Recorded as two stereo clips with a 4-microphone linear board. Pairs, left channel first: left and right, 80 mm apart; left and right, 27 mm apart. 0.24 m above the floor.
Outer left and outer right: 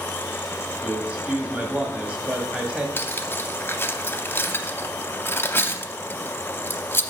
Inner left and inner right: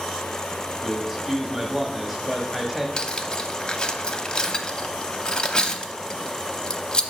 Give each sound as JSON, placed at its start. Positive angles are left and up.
{"t": 0.8, "sound": "a man speaking", "side_deg": -15, "distance_m": 1.0}
{"t": 3.0, "sound": "cutlery clinking", "side_deg": 30, "distance_m": 0.6}